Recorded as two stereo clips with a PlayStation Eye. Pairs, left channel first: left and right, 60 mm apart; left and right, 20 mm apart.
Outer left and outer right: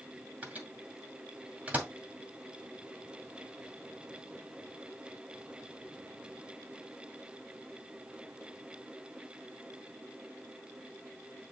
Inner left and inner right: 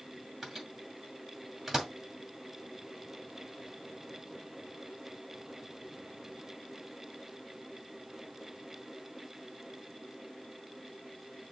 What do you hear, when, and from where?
0.4 s a microwave: 25° right (ahead or behind), 2 m